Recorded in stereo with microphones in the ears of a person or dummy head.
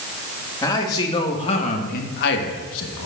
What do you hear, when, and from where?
0.6 s a man speaking: 20° left (ahead or behind), 2.0 m; by 3.1 s 75° left (ahead or behind), 1.2 m